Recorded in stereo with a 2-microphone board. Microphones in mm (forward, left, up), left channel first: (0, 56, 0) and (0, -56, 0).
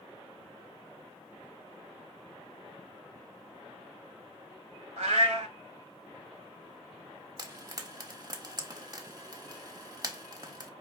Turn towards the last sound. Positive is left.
turn(degrees=-35)  # may be behind; listen again after turning